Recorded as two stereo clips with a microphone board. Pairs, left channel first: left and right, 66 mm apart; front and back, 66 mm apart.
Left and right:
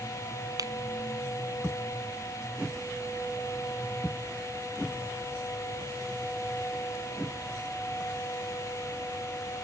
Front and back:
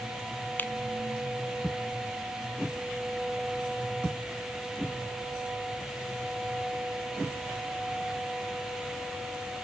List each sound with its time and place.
0.6 s a finger snap: 60° right